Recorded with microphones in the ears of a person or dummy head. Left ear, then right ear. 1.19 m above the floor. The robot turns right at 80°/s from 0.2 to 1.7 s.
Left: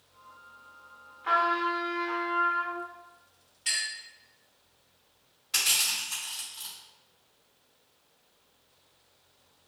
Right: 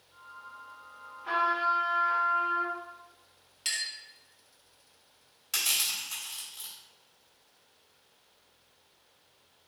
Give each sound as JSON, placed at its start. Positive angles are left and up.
{"t": 1.2, "sound": "a trumpet", "azimuth_deg": 145, "distance_m": 1.4}
{"t": 3.6, "sound": "a clink", "side_deg": -65, "distance_m": 1.1}
{"t": 5.5, "sound": "crushing", "side_deg": -55, "distance_m": 1.8}